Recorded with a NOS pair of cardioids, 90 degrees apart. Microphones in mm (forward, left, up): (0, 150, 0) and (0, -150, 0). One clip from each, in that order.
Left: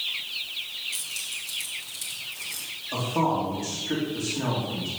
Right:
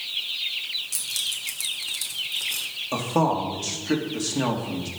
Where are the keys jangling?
55° right, 2.5 m; by 2.7 s 40° right, 3 m.